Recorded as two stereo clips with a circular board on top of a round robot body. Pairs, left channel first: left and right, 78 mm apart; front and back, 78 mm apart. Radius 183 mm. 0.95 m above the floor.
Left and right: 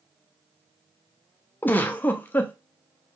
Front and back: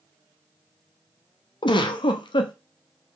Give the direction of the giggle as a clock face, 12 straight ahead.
11 o'clock.